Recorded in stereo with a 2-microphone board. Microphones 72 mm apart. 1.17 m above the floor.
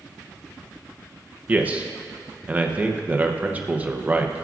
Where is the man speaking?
20° right (ahead or behind), 0.8 m.